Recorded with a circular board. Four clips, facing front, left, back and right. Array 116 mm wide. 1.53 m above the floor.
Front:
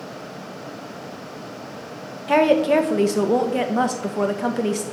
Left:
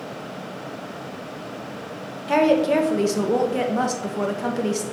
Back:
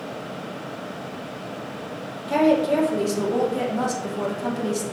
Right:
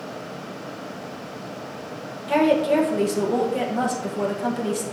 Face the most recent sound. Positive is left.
turn(degrees=15)